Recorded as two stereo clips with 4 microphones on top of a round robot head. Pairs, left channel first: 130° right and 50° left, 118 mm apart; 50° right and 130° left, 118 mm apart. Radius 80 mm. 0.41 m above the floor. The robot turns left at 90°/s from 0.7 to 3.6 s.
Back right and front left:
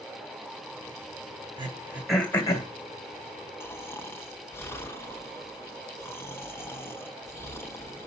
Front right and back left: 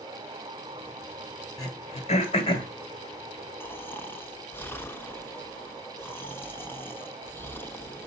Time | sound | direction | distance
1.6 | throat clearing | 5° left | 1.7 m
3.6 | snoring | 95° right | 1.0 m